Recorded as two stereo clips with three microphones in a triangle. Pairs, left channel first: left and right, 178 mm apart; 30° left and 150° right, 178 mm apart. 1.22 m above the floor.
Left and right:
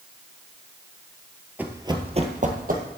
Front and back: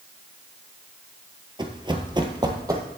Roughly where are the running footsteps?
Behind.